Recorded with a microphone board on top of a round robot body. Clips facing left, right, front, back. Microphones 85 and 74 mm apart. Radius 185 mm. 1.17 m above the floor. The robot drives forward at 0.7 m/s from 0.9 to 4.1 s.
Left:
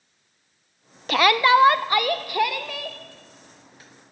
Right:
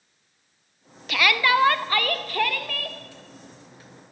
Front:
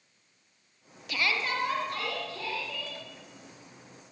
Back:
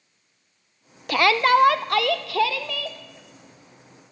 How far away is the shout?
About 0.5 m.